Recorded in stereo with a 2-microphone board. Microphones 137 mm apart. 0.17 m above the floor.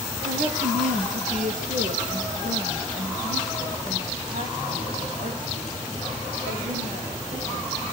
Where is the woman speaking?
65° right (ahead or behind), 4.5 m; by 7.7 s 75° right (ahead or behind), 14 m.